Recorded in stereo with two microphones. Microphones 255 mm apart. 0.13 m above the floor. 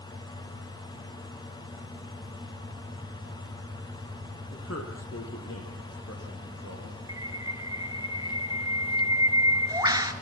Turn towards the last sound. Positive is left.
turn(degrees=-15)  # may be behind; listen again after turning